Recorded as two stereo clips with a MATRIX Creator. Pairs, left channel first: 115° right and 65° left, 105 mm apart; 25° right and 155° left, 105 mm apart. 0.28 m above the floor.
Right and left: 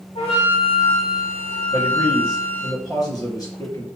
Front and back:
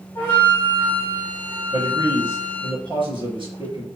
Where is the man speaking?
165° right, 3.5 m.